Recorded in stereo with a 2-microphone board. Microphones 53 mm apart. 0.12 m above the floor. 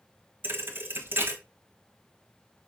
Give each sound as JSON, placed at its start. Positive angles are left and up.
{"t": 0.4, "sound": "a thud", "side_deg": -45, "distance_m": 1.2}